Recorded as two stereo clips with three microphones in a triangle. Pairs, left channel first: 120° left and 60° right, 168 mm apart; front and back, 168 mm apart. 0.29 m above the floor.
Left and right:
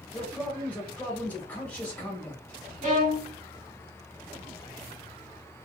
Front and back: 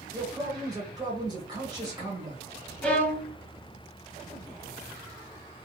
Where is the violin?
80° right, 0.8 m.